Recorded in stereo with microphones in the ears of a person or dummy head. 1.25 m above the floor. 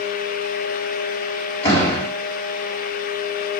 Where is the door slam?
15° left (ahead or behind), 5 m.